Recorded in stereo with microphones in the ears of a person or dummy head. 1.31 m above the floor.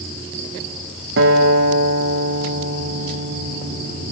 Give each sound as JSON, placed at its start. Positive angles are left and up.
{"t": 1.2, "sound": "a guitar", "side_deg": -75, "distance_m": 0.8}